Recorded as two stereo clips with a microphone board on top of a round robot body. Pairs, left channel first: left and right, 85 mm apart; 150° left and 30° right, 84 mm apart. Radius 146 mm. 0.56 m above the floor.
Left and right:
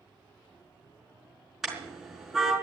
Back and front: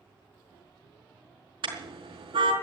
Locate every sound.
1.6 s a car horn: 5° right, 4.5 m